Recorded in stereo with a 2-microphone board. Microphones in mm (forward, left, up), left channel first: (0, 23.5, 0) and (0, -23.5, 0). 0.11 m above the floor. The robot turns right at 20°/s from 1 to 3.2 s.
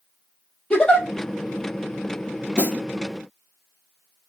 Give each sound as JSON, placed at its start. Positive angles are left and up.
{"t": 0.7, "sound": "a giggle", "side_deg": 20, "distance_m": 1.7}
{"t": 2.6, "sound": "a snare drum", "side_deg": -25, "distance_m": 1.5}